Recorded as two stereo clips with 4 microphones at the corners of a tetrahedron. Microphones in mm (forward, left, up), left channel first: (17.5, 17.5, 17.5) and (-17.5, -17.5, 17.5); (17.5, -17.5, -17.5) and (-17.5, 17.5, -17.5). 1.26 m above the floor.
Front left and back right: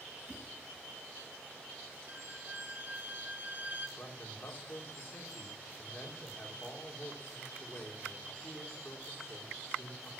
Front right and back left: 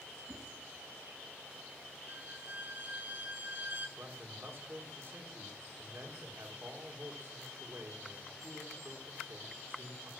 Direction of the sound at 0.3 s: Straight behind.